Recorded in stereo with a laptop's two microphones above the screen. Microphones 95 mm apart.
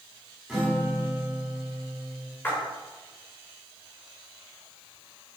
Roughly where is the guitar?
Centre.